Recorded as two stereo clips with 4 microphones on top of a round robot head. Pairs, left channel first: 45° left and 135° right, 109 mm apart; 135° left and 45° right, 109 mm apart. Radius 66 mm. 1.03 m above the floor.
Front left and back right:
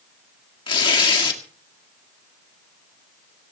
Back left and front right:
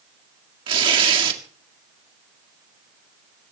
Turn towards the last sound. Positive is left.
turn(degrees=0)